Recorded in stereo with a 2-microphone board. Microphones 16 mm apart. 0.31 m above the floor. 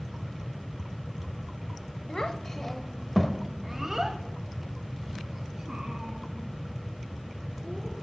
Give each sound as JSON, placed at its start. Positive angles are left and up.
{"t": 2.1, "sound": "a child speaking", "side_deg": 45, "distance_m": 0.9}